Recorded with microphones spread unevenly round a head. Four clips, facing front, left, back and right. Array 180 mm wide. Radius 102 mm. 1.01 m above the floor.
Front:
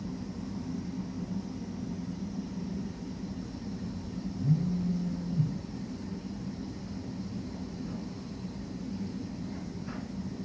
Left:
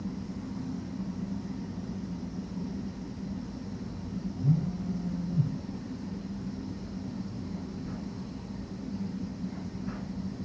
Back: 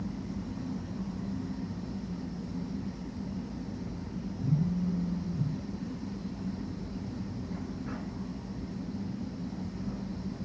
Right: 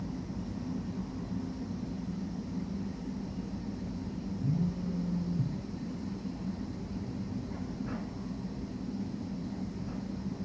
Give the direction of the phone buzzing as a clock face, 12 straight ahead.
9 o'clock.